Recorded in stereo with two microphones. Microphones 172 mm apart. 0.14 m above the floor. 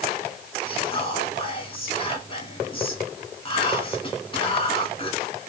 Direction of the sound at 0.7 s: 30° left (ahead or behind).